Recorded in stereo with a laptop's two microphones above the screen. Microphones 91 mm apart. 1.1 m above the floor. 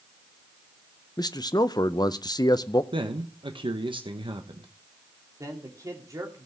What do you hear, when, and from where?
1.2 s a man speaking: 45° left (ahead or behind), 0.6 m
2.9 s a man speaking: 60° right (ahead or behind), 1.2 m
5.4 s a man speaking: 35° right (ahead or behind), 2.5 m